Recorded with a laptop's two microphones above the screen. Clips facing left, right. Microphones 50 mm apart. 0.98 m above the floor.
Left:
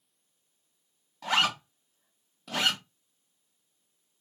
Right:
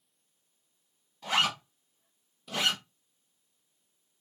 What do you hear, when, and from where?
1.2 s a zipper: 80° left, 2.0 m